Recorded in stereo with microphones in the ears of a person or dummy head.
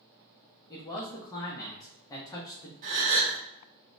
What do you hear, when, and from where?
0.7 s a man speaking: 20° left (ahead or behind), 0.5 m
2.8 s a gasp: 45° right (ahead or behind), 0.7 m